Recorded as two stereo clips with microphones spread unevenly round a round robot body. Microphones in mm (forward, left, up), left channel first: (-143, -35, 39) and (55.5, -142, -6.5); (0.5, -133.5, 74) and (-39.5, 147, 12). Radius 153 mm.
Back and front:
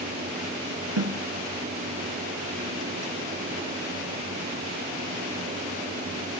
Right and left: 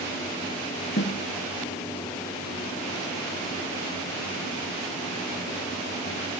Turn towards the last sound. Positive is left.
turn(degrees=-30)